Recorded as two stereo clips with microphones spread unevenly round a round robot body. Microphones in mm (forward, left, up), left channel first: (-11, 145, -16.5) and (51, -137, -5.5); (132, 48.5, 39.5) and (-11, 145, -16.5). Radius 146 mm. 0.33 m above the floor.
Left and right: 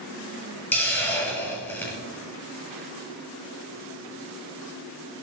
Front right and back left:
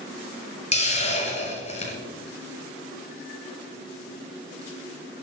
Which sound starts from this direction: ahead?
A hiss, at 0.7 s.